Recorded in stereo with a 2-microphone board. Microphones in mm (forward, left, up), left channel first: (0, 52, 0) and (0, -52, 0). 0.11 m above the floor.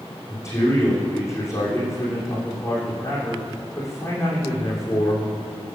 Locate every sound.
0.3 s a man speaking: 30° left (ahead or behind), 7 m